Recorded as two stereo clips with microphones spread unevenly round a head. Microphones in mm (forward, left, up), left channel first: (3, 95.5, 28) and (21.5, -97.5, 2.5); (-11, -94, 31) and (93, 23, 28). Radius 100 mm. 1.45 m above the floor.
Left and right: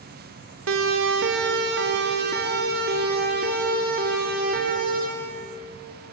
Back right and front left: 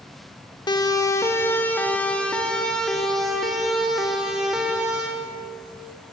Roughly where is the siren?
Right.